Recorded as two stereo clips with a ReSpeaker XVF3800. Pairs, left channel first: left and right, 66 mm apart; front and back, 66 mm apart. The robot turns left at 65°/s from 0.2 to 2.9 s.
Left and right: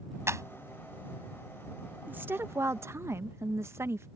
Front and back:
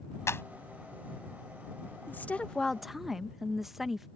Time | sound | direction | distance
0.3 | a clap | 45° right | ?
2.1 | a woman speaking | 40° right | ?